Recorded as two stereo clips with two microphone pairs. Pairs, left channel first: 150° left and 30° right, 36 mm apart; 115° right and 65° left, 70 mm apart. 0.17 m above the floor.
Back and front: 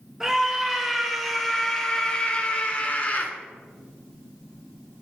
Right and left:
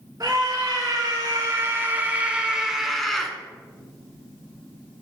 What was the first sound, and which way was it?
A scream, 45° left.